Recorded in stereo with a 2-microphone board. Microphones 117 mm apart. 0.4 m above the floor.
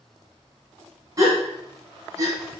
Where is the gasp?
30° right (ahead or behind), 1.9 m.